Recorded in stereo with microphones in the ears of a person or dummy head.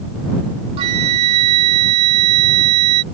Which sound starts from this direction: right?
A flute, at 0.8 s.